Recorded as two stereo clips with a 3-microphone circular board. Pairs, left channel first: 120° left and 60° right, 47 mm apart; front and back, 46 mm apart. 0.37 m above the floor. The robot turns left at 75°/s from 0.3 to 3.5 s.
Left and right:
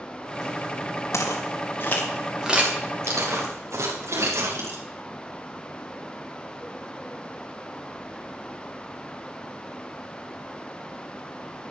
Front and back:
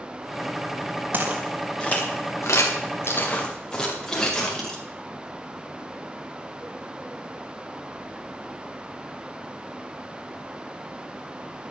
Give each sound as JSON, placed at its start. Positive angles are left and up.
{"t": 1.1, "sound": "footsteps", "azimuth_deg": 130, "distance_m": 4.0}